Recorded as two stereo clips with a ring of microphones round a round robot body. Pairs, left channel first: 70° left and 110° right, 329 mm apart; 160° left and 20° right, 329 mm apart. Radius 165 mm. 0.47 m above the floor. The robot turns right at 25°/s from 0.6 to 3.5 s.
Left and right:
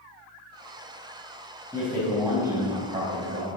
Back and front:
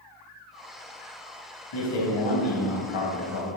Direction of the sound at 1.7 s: 145° left.